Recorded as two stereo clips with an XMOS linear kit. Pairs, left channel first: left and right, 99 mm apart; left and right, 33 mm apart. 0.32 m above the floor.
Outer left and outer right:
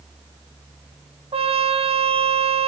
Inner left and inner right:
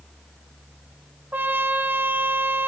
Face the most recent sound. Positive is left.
turn(degrees=-75)  # may be behind; listen again after turning